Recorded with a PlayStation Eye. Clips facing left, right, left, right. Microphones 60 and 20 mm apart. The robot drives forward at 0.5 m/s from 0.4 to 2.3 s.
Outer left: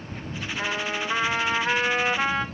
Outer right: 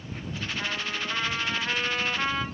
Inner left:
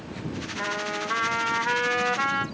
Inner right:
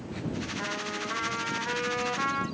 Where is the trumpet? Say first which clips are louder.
Outer left 5 dB, inner left 8 dB; 25° left (ahead or behind), 1.0 m.